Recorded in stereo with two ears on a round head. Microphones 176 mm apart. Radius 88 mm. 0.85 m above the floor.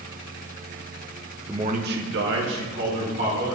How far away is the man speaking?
About 0.6 m.